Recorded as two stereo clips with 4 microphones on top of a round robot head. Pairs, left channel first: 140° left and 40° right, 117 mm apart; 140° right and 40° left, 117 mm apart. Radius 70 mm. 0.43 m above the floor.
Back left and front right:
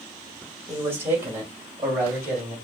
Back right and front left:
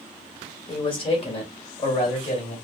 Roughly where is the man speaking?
Right.